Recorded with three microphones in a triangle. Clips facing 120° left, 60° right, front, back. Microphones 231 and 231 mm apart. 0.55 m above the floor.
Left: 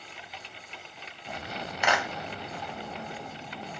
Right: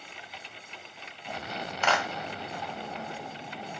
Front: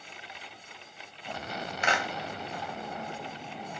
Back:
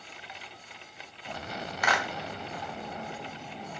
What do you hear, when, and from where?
1.8 s a clap: 45° left, 0.8 m